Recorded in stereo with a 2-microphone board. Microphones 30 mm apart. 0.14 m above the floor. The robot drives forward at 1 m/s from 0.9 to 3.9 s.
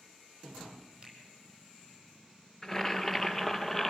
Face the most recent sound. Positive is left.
turn(degrees=10)  # may be behind; listen again after turning